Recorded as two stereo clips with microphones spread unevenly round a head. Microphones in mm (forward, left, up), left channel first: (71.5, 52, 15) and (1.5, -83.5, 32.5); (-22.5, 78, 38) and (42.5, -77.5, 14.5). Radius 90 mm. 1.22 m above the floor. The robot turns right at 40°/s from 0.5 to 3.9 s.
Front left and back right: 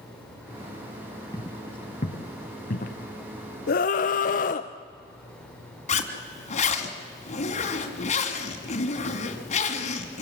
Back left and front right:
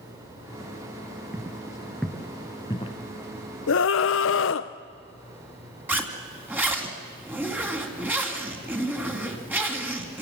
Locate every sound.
1.3 s footsteps: 20° left, 1.2 m; by 3.0 s 75° left, 1.6 m
3.7 s a scream: 95° left, 0.5 m; by 4.7 s 105° left, 0.5 m
5.9 s a zipper: 15° left, 2.5 m